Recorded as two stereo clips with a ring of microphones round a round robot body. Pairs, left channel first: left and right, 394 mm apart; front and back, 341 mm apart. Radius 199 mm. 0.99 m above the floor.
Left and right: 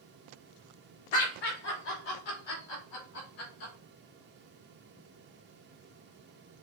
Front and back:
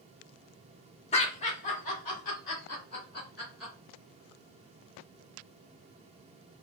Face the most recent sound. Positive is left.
turn(degrees=65)